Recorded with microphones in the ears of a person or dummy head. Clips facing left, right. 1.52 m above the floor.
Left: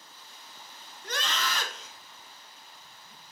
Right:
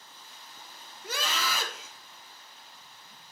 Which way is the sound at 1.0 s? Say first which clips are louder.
Even; 10° right (ahead or behind).